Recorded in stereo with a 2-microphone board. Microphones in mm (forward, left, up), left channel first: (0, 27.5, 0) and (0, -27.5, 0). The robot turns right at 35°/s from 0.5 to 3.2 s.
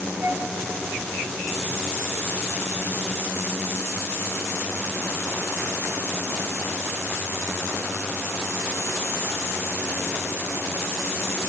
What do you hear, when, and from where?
0.2 s a flute: 50° right (ahead or behind), 0.8 m